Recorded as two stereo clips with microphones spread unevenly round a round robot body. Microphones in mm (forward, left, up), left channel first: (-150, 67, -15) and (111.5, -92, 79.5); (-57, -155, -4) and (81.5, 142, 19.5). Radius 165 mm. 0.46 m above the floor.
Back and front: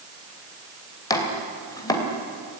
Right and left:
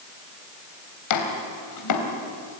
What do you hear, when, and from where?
1.1 s chopping: 140° right, 3 m